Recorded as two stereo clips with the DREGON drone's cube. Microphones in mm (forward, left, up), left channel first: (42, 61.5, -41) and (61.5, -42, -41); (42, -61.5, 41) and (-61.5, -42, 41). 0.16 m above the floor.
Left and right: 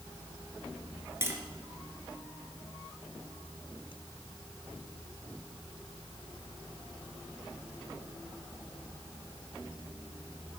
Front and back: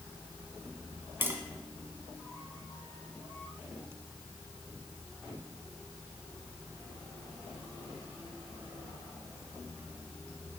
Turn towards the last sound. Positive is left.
turn(degrees=-130)